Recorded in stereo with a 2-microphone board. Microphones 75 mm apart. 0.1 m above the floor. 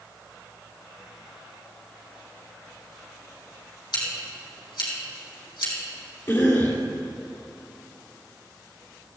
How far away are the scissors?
About 4.5 m.